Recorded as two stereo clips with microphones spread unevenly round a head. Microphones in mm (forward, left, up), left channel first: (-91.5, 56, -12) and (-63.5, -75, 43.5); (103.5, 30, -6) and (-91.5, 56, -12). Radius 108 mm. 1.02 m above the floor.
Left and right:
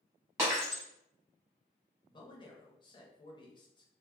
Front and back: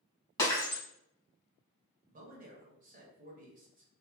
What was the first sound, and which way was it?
Breaking glass, 70° right.